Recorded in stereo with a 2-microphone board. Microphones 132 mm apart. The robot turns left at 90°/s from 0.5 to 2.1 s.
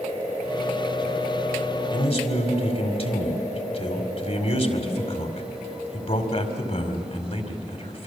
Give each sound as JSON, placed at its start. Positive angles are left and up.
{"t": 1.9, "sound": "a man speaking", "side_deg": 30, "distance_m": 2.5}